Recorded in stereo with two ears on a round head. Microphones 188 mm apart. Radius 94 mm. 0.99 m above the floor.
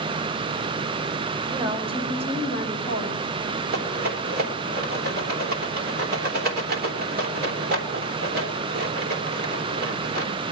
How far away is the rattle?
About 3 m.